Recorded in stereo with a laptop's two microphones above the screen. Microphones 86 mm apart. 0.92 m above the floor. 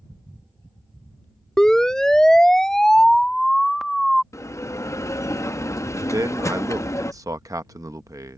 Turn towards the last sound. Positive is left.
turn(degrees=-40)  # may be behind; listen again after turning